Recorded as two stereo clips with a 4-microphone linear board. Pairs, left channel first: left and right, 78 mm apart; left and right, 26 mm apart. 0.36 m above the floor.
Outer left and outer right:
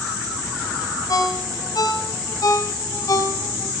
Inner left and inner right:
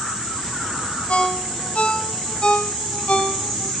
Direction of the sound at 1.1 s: 55° left (ahead or behind).